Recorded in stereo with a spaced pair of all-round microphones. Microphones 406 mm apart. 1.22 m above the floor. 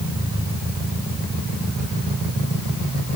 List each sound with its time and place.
Only background noise.